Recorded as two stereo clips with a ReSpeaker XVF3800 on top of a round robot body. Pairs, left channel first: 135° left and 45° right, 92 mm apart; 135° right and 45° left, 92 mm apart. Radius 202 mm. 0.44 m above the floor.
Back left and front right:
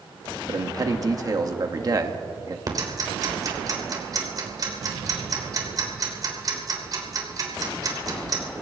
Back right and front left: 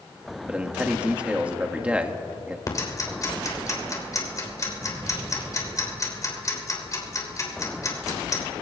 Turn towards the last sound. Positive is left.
turn(degrees=-85)